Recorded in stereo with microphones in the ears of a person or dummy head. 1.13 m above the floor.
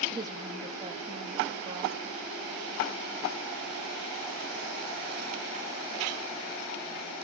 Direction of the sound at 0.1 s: 25° right (ahead or behind).